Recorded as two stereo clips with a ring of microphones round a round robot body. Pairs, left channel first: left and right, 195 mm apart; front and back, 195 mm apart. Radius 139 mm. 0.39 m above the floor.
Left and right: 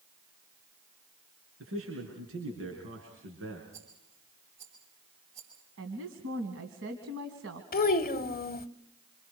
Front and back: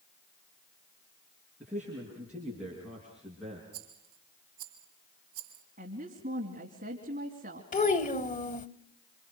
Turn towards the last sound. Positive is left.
turn(degrees=50)